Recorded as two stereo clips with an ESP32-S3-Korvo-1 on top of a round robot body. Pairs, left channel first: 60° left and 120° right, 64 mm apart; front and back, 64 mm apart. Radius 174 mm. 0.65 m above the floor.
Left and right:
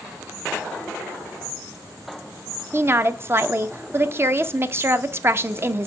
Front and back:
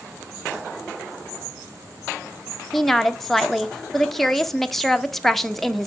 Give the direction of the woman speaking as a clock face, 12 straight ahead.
3 o'clock.